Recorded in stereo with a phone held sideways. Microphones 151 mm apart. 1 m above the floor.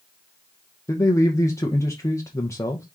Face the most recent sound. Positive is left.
turn(degrees=20)  # may be behind; listen again after turning